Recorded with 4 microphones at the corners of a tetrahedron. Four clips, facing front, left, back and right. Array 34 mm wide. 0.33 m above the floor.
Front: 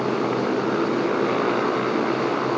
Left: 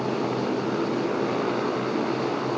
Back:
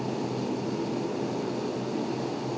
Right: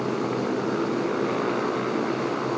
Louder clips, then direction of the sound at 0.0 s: Even, front 8 dB; 10° right.